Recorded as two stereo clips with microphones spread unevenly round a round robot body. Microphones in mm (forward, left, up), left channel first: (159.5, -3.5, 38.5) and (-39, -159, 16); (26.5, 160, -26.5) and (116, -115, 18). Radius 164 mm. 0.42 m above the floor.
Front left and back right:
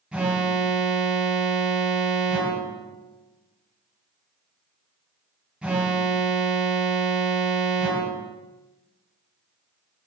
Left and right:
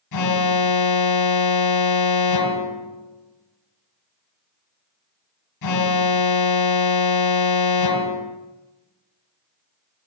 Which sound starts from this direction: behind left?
An alarm, at 0.1 s.